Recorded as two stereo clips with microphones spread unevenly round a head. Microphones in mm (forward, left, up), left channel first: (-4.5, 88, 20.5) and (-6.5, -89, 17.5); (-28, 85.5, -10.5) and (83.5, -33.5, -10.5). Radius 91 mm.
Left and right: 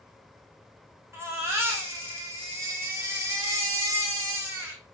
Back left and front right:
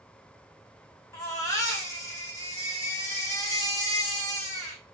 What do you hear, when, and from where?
1.1 s a baby crying: 165° right, 1.3 m